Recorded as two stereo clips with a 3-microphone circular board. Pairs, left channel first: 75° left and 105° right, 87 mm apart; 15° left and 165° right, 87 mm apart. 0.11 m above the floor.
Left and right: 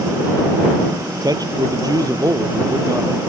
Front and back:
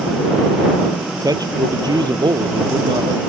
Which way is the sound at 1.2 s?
130° right.